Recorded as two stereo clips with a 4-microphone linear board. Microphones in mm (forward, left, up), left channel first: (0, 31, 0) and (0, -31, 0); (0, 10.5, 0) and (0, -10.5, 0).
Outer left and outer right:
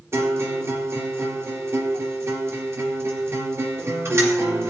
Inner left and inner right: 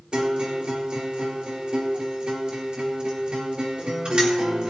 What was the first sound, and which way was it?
A guitar, 50° right (ahead or behind).